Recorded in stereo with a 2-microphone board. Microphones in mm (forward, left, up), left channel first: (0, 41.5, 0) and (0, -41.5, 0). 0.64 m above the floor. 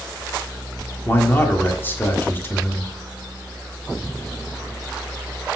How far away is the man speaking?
About 1.6 m.